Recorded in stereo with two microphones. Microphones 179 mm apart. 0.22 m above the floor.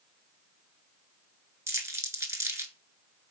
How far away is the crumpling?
About 0.6 m.